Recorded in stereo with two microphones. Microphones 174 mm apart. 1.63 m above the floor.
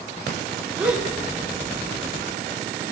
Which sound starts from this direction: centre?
A gasp, at 0.8 s.